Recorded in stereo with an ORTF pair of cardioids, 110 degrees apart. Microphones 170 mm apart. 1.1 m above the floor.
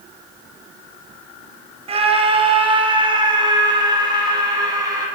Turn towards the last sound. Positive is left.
turn(degrees=-20)